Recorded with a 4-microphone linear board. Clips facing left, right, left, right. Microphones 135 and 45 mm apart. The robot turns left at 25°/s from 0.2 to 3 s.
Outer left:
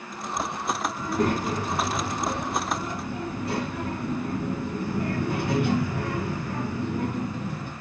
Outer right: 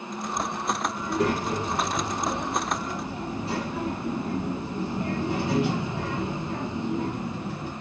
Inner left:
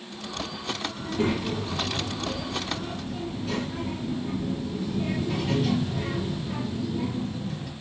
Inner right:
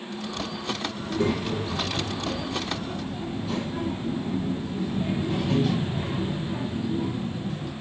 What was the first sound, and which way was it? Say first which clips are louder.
A child speaking: outer left 1 dB, even; 125° left.